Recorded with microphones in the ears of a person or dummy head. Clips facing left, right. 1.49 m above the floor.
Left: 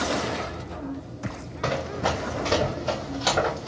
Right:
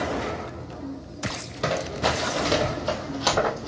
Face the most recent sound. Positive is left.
turn(degrees=0)  # may be behind; listen again after turning